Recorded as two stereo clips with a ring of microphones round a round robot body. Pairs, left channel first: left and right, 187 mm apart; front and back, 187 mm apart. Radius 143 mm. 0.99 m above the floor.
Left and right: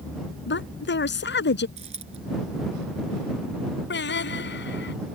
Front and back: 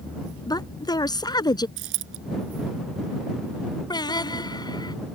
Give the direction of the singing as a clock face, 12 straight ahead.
10 o'clock.